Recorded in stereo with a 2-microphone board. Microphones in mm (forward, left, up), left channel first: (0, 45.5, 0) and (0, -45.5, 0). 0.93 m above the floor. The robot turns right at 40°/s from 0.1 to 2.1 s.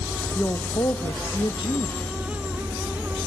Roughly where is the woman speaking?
Ahead left.